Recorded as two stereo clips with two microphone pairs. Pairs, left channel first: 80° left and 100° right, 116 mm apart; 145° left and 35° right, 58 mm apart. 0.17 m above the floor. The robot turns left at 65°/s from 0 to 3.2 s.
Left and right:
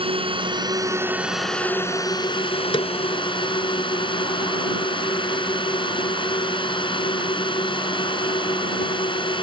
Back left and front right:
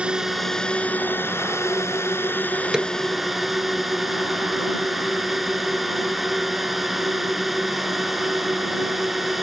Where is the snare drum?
45° left; by 2.9 s 30° left.